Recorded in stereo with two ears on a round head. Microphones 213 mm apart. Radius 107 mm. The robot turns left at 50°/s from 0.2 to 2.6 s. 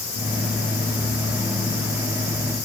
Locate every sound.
Only background noise.